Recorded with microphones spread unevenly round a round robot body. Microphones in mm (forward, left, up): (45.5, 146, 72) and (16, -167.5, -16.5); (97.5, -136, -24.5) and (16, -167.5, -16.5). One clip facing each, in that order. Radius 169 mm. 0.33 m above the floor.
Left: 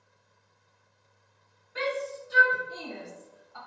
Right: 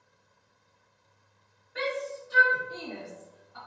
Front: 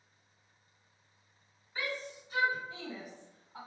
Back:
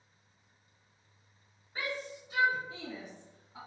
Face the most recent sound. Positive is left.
turn(degrees=105)